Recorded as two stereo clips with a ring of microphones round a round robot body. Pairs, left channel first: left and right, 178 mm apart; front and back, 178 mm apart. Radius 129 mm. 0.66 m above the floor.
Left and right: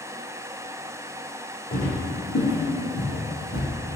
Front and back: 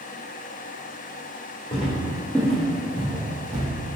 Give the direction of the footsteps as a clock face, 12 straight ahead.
10 o'clock.